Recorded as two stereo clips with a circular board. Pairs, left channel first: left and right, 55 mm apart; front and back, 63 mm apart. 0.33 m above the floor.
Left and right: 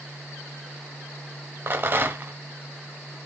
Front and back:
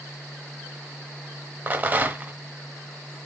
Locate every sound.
1.7 s a rattle: 125° right, 0.7 m